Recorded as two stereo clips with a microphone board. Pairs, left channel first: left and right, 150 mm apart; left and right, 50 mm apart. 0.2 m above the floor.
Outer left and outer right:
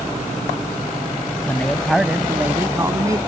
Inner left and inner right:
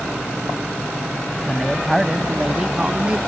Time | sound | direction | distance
1.5 | a man speaking | 10° left (ahead or behind) | ?